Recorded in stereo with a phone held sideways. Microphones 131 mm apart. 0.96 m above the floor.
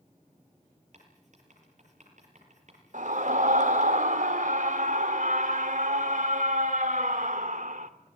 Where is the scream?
70° right (ahead or behind), 2.5 m.